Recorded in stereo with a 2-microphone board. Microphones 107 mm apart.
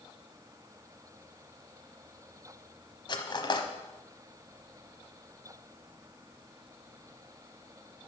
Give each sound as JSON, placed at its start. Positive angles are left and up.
{"t": 3.1, "sound": "cutlery clinking", "side_deg": 45, "distance_m": 1.0}